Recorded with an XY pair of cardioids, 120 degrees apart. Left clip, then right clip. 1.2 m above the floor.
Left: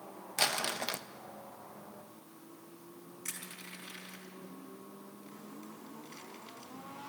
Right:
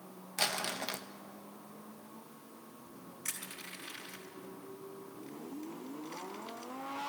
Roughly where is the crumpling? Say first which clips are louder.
Left 2 dB; ahead.